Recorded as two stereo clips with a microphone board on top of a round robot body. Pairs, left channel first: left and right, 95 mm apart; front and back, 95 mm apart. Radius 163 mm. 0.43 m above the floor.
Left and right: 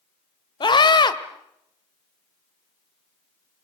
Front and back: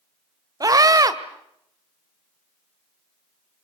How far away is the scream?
About 2 m.